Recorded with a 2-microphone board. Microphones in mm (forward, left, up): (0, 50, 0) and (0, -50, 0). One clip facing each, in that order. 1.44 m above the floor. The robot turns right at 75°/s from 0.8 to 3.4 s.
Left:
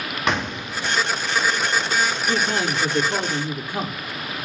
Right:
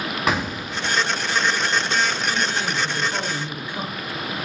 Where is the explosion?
5° right (ahead or behind), 1.0 m; by 1.0 s 5° left (ahead or behind), 1.0 m.